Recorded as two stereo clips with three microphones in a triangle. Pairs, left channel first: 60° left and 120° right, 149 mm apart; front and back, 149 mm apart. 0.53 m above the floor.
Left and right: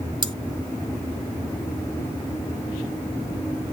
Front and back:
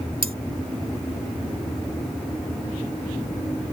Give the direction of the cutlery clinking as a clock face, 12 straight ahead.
6 o'clock.